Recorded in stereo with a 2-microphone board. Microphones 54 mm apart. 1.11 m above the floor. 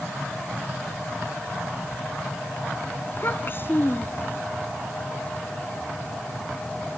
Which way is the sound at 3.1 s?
40° left (ahead or behind).